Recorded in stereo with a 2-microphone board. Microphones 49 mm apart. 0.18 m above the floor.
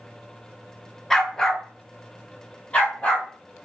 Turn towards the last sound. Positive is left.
turn(degrees=25)  # may be behind; listen again after turning